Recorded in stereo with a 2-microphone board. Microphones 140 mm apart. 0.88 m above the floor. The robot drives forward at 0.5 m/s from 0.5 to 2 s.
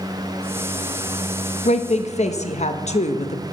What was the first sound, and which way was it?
A woman speaking, 55° left (ahead or behind).